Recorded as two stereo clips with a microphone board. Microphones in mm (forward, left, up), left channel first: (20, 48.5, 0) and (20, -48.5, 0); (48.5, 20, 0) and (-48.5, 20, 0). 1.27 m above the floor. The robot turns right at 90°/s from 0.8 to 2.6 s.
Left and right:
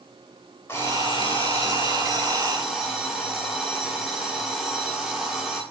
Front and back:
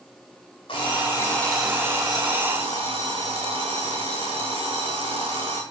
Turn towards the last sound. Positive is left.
turn(degrees=-175)